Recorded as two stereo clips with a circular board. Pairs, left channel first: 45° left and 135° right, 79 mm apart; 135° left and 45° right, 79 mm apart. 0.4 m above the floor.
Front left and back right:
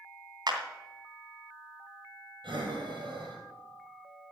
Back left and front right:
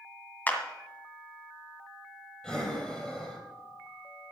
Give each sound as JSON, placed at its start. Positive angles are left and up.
{"t": 0.5, "sound": "a clap", "azimuth_deg": -160, "distance_m": 2.5}
{"t": 2.4, "sound": "breathing", "azimuth_deg": -145, "distance_m": 4.0}